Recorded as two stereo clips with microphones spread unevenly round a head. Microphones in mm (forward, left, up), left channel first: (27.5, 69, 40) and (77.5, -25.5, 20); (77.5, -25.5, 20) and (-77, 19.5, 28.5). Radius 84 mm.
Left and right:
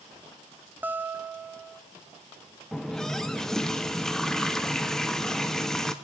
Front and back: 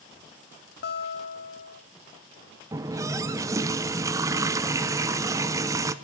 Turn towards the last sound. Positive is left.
turn(degrees=160)